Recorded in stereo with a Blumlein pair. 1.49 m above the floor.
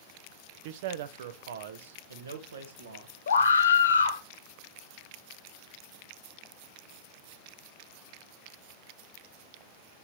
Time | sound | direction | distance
0.7 | a man speaking | 50° right | 0.6 m
3.3 | a scream | 70° left | 1.6 m